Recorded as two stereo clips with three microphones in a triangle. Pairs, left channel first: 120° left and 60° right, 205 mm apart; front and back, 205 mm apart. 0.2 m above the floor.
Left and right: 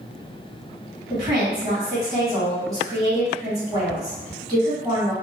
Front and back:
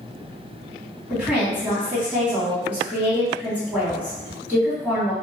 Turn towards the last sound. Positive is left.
turn(degrees=-110)